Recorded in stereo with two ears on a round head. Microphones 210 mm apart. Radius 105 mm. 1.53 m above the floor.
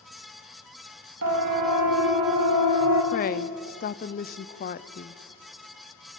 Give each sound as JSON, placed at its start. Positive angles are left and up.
{"t": 1.2, "sound": "a siren", "side_deg": -75, "distance_m": 2.0}
{"t": 3.1, "sound": "a woman speaking", "side_deg": 40, "distance_m": 0.6}